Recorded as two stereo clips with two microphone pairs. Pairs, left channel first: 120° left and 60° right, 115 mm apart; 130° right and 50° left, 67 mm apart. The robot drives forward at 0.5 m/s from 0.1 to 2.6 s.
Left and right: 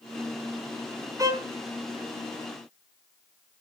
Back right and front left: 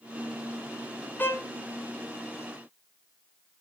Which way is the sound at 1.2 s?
100° right.